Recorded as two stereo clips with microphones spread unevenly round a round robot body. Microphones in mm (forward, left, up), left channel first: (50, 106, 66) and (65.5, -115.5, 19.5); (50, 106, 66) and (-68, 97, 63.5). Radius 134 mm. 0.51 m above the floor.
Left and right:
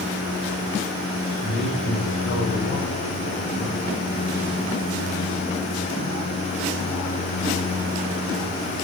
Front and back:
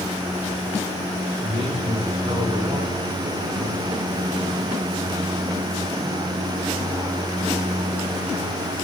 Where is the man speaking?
140° left, 5.5 m; by 4.0 s 135° left, 6.5 m.